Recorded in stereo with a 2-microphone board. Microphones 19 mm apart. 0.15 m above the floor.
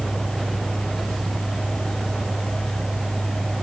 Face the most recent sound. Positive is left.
No sound to turn to.